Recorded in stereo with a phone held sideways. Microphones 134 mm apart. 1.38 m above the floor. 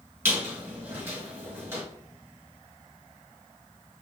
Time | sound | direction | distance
0.2 | a squeak | 20° right (ahead or behind) | 1.4 m